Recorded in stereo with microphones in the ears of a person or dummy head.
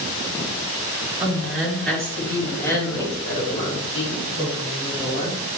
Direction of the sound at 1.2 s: Centre (ahead or behind).